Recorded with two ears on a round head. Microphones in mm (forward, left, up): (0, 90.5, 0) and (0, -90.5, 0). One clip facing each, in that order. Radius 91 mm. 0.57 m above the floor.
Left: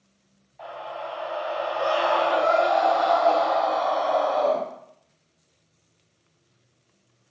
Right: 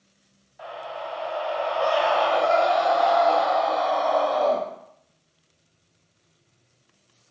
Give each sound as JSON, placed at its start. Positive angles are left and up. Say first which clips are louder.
{"t": 0.6, "sound": "a scream", "louder": "even", "side_deg": -10, "distance_m": 0.7}